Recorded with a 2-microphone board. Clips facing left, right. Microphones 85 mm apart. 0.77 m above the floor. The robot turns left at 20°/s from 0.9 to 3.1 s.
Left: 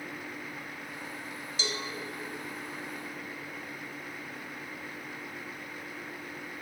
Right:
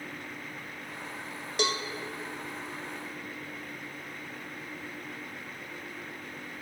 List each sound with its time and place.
1.6 s a cowbell: 60° right (ahead or behind), 0.5 m; by 1.8 s 65° right (ahead or behind), 0.5 m